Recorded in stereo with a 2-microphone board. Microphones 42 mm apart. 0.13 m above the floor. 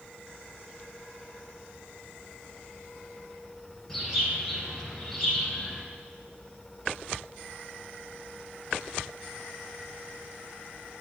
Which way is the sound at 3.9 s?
5° left (ahead or behind).